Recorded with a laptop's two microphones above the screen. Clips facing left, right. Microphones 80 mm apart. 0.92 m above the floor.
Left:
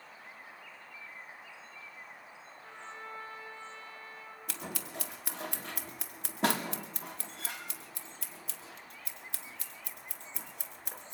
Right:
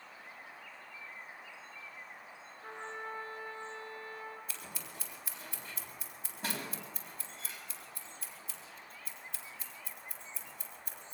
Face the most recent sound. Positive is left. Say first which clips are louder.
# left 5 dB
turn(degrees=75)  # may be behind; listen again after turning